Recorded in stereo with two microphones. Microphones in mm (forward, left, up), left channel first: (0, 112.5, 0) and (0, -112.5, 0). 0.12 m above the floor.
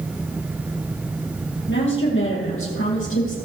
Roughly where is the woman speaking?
Left.